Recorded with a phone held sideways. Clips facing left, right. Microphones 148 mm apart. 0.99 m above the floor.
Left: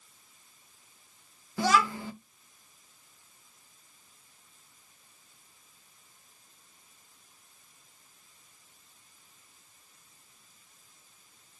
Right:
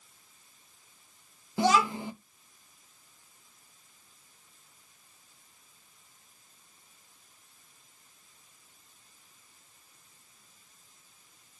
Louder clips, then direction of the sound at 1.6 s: Right 1 dB; 20° right (ahead or behind).